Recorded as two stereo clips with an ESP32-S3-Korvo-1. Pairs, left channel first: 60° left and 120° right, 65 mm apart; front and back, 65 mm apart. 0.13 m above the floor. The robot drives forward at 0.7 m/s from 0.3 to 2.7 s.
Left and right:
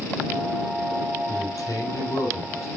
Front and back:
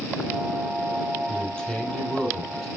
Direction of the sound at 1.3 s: 70° left.